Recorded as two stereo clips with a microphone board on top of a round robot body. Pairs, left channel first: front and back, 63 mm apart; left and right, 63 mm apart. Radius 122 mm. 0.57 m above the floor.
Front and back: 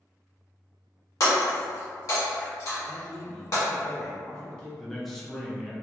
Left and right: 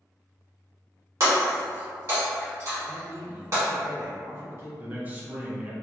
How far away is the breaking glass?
About 1.4 m.